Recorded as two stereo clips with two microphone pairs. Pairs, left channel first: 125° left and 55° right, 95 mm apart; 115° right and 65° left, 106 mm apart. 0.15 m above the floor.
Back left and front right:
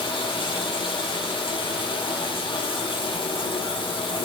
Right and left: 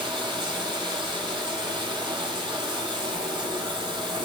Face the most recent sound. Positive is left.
turn(degrees=100)